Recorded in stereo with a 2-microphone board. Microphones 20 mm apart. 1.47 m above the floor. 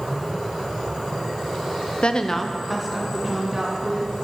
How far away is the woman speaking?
About 0.6 m.